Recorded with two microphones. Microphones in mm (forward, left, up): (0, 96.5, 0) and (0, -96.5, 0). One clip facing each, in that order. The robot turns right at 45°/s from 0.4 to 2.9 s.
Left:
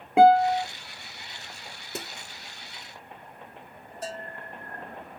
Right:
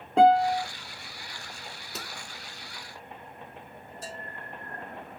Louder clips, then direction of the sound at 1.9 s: Left 6 dB; 50° left (ahead or behind).